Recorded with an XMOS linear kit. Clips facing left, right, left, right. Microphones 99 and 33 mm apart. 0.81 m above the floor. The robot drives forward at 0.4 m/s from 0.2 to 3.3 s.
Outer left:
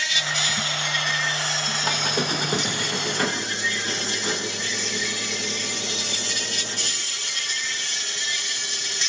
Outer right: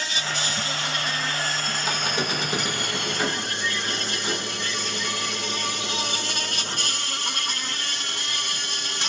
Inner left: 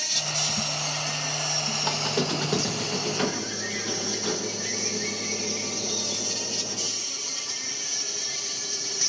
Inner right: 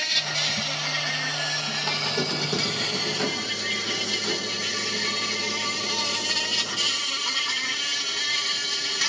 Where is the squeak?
50° left (ahead or behind), 8 m; by 6.9 s 45° left (ahead or behind), 8.5 m.